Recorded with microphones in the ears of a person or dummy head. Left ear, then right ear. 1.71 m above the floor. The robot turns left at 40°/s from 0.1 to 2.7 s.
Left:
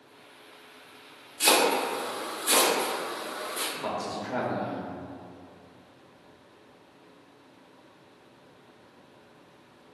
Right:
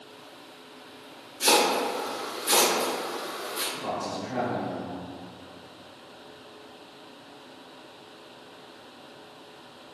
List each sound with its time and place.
1.4 s chopping: 45° left (ahead or behind), 0.8 m; by 3.6 s 5° right (ahead or behind), 0.8 m
3.7 s a man speaking: 55° left (ahead or behind), 0.6 m